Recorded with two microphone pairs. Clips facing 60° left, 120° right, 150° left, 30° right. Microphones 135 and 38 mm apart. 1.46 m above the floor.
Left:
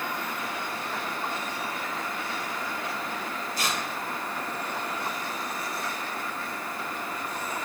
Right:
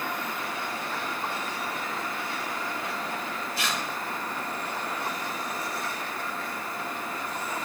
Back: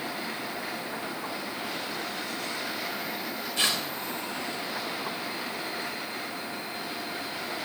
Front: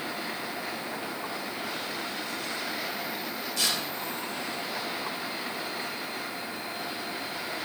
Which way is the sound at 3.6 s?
100° left.